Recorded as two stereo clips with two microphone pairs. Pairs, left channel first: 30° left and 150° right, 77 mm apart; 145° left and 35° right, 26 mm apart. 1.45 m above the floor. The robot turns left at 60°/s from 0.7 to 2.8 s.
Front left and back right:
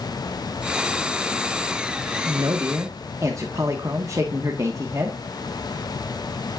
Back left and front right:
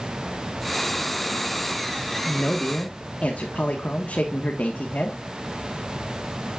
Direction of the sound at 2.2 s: 165° right.